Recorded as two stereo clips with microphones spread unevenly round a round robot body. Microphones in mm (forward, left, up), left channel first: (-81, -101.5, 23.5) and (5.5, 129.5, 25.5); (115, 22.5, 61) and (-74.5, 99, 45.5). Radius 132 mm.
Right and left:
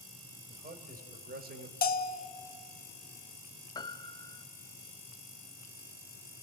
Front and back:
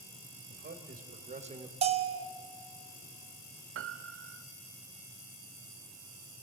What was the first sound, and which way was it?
A man speaking, 125° left.